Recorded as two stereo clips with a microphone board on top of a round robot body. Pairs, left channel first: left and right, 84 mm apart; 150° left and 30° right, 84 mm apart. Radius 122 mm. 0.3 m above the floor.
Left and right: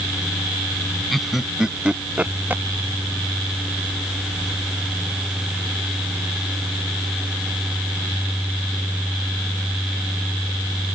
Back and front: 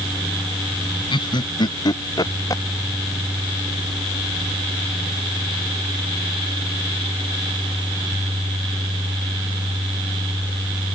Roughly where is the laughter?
Behind.